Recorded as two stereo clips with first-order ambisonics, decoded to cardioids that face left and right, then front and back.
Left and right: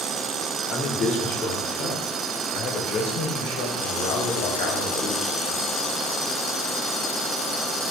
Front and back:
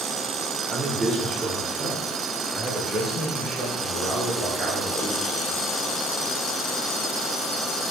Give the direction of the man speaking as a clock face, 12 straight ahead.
8 o'clock.